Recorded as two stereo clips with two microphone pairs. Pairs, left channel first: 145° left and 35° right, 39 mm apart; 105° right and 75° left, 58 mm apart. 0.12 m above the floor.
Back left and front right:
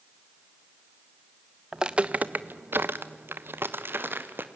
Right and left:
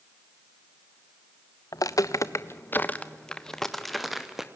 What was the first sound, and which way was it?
Footsteps, 105° right.